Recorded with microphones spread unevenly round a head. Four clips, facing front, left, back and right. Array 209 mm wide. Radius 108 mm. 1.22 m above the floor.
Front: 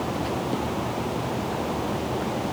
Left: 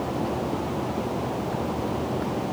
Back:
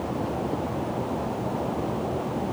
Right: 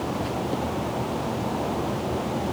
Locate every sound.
Only background noise.